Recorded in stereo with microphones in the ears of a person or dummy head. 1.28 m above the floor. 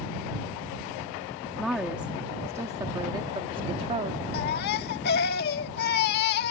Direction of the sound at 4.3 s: 55° left (ahead or behind).